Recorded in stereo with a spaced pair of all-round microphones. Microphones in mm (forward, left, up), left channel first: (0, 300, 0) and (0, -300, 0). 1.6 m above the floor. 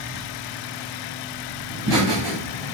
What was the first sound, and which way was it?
Laughter, 45° right (ahead or behind).